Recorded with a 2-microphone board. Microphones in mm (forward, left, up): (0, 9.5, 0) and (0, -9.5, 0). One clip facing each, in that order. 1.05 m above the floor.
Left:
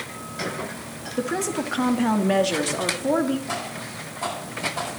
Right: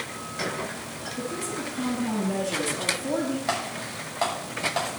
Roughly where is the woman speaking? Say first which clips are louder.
Left 7 dB; left.